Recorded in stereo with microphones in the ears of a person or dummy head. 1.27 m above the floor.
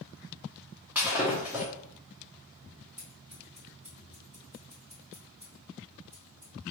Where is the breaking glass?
5° right (ahead or behind), 0.8 m.